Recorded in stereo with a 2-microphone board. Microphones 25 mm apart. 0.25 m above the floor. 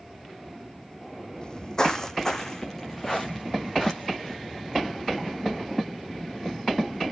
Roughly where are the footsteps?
Left.